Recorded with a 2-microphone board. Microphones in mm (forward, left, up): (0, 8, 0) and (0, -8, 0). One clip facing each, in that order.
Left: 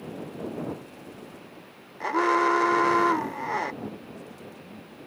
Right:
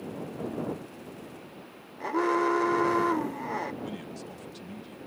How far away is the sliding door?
I don't hear a sliding door.